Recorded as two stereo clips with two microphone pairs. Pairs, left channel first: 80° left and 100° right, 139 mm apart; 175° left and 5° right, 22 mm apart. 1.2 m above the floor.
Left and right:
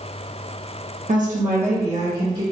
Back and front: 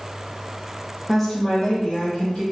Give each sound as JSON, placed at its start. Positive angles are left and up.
{"t": 1.1, "sound": "a woman speaking", "azimuth_deg": -90, "distance_m": 0.8}